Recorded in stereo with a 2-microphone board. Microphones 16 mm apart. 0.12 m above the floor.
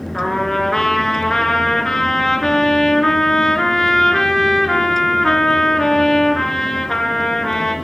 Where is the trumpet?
30° left (ahead or behind), 1.1 m.